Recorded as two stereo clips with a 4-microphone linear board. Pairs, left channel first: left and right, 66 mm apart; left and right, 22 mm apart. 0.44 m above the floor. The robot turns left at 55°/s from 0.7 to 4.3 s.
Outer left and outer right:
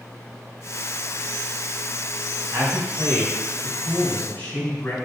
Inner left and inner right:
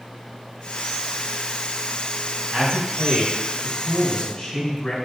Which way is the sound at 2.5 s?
110° right.